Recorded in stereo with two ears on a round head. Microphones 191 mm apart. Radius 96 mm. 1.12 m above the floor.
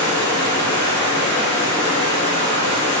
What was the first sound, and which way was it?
Running water, 55° right (ahead or behind).